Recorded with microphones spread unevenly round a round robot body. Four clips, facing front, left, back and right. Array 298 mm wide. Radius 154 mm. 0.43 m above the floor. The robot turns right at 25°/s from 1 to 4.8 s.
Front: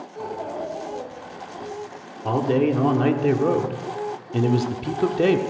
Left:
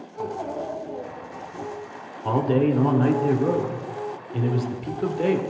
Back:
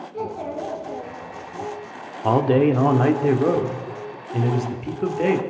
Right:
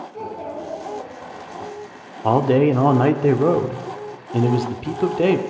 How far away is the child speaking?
About 5 m.